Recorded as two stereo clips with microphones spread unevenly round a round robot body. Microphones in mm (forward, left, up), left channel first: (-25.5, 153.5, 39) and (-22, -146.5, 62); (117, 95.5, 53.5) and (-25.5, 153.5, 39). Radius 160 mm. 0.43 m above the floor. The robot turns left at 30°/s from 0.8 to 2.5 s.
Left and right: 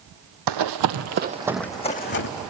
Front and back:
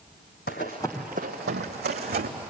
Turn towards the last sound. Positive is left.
turn(degrees=130)